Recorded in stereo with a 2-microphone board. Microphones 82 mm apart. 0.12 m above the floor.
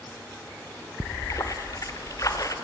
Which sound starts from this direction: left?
A splash, at 1.0 s.